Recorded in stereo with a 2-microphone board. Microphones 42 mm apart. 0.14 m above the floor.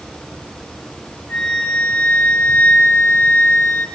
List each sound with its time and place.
1.3 s a flute: 60° left (ahead or behind), 3.5 m